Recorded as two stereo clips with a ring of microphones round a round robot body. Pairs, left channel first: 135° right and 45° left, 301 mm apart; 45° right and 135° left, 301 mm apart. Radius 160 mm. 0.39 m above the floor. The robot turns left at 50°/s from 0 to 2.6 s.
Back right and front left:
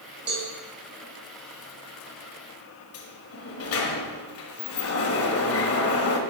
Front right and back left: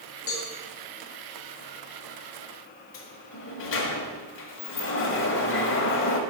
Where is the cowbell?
5° right, 2.5 m; by 0.5 s 20° right, 2.5 m.